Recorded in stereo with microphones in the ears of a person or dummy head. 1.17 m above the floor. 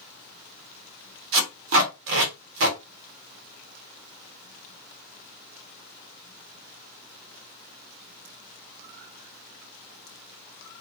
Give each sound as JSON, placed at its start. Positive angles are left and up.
{"t": 1.3, "sound": "tape being pulled", "side_deg": -60, "distance_m": 0.7}